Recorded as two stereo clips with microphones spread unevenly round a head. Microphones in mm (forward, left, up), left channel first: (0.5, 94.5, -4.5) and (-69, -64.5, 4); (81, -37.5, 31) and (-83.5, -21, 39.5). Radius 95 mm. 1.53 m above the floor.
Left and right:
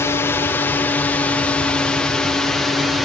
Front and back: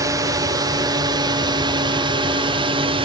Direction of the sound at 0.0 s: 125° left.